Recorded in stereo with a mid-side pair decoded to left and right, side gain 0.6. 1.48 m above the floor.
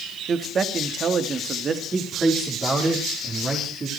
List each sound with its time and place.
0.3 s a man speaking: 35° right, 2.5 m
1.9 s a man speaking: 30° right, 4 m